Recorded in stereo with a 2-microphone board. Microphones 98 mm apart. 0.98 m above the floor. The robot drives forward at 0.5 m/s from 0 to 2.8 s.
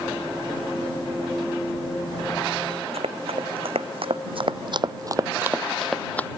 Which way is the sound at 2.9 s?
75° right (ahead or behind).